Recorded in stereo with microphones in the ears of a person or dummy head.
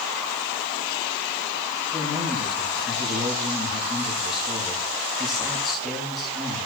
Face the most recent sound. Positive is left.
turn(degrees=0)  # may be behind; listen again after turning